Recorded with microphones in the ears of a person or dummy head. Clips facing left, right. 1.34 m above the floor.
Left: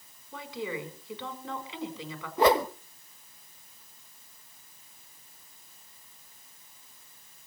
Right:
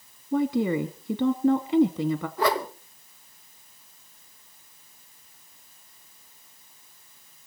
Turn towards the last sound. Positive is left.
turn(degrees=20)  # may be behind; listen again after turning